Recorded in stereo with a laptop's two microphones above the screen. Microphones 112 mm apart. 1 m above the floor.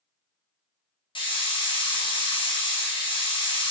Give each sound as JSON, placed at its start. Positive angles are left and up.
{"t": 1.1, "sound": "a hiss", "side_deg": 50, "distance_m": 0.7}